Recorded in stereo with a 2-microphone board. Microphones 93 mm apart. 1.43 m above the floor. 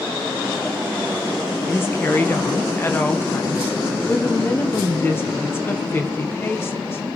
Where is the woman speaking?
25° left (ahead or behind), 0.9 m.